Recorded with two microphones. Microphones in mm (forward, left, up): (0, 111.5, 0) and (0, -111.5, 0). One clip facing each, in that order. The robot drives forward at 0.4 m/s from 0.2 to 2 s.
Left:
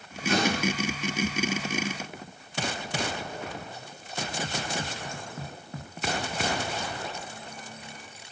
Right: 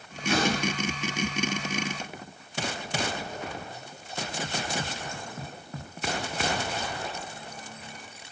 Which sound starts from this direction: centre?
A door slam, at 0.3 s.